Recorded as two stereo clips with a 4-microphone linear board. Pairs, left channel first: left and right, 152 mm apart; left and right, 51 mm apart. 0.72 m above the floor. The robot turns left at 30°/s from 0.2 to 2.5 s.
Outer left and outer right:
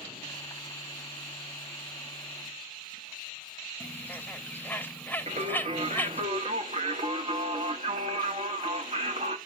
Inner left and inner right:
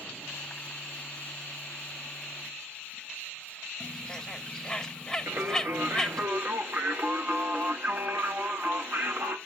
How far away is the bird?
About 0.5 m.